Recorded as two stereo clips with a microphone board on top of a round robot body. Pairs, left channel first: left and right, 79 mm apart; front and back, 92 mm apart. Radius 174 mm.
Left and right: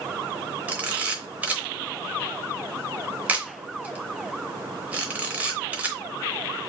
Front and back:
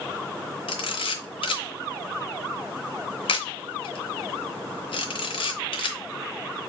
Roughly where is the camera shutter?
Ahead.